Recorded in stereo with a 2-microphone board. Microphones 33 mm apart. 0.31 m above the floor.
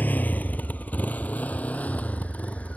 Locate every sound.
0.0 s a motorcycle: 70° left (ahead or behind); by 2.8 s 50° left (ahead or behind)